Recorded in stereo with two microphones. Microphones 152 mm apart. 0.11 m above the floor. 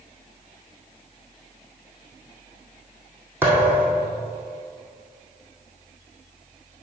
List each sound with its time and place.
3.4 s a thud: 15° right (ahead or behind), 2 m